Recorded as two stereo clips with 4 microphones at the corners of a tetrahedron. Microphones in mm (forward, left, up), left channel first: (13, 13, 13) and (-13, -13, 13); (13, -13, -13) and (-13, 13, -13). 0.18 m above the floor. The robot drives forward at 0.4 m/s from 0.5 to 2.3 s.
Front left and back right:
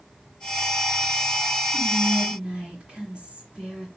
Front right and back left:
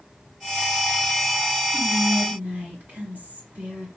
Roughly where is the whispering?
Behind.